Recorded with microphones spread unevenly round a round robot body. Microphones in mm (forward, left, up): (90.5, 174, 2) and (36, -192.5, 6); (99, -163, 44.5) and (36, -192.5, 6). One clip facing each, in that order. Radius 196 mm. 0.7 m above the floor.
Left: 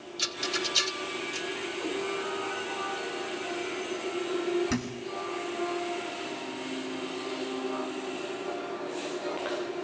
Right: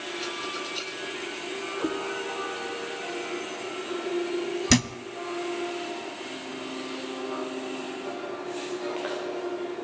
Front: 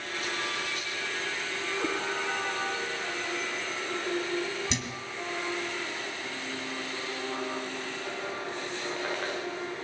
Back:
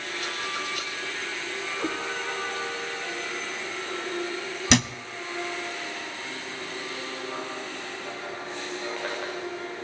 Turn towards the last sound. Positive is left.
turn(degrees=-125)